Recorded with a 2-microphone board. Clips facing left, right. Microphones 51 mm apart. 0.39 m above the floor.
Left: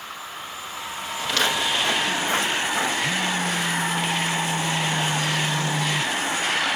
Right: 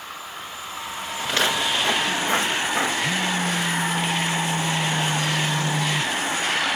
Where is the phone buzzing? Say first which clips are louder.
Even; 25° right (ahead or behind), 0.9 m.